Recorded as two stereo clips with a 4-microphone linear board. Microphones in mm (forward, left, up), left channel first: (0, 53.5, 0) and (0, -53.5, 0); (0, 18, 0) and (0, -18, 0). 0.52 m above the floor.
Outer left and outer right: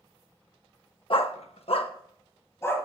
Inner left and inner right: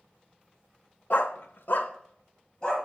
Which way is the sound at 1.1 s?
55° left (ahead or behind).